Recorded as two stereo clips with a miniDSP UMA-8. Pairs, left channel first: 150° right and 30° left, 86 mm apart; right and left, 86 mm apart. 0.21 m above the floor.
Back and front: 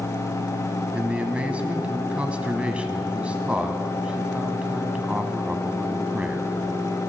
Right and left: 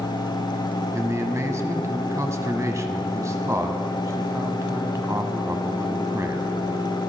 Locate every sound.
0.9 s a man speaking: 95° left, 1.2 m